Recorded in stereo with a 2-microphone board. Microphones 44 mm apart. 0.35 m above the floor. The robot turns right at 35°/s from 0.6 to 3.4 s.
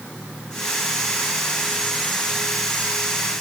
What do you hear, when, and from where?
Only background noise.